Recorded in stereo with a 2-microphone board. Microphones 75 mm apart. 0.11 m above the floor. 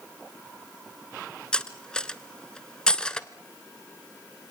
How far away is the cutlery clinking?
About 0.8 m.